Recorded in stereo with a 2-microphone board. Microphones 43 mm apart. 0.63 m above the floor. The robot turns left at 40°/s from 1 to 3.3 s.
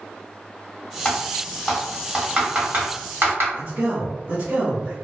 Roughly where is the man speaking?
Right.